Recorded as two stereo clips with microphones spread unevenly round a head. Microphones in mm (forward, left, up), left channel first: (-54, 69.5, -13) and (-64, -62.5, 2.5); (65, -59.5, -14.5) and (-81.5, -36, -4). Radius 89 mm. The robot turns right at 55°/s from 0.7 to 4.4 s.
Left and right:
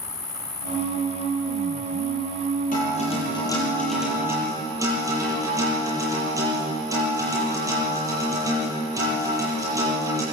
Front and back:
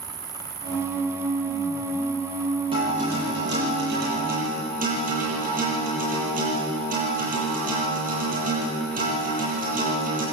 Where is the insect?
105° left, 3 m; by 10.3 s 50° right, 3 m.